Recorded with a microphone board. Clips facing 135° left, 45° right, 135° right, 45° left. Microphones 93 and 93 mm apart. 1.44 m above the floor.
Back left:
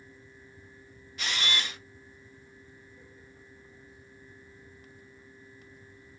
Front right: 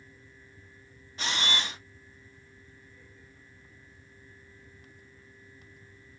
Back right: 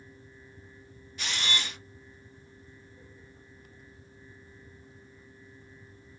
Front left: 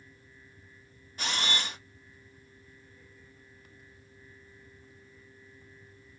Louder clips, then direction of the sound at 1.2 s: Front right 1 dB, front left 1 dB; 5° left.